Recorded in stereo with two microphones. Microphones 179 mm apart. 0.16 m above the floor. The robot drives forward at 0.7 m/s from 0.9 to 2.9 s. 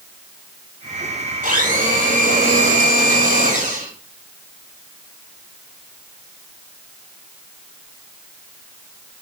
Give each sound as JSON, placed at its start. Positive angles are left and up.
{"t": 1.4, "sound": "a blender", "side_deg": -50, "distance_m": 5.5}